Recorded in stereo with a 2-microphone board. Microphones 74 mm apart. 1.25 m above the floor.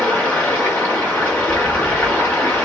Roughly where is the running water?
Left.